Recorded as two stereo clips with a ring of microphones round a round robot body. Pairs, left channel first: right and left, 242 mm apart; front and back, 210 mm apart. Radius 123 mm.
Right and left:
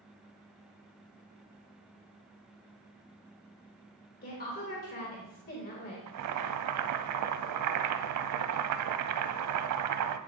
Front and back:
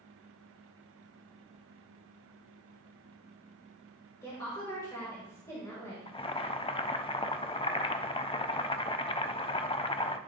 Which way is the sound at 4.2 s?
70° right.